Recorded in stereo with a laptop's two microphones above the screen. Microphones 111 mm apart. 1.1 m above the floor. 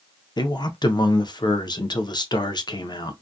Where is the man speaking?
40° left (ahead or behind), 0.6 m.